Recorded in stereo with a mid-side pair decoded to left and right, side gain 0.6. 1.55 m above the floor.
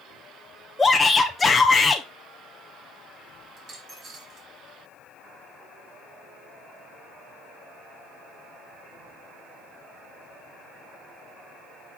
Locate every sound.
0.8 s a shout: 15° left, 0.9 m
3.6 s a dropped coin: 40° right, 3 m